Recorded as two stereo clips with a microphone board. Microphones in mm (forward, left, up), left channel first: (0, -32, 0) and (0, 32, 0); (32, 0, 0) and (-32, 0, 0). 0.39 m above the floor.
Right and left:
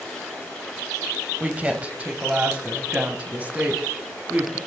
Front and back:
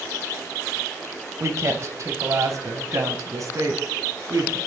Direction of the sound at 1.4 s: 155° left.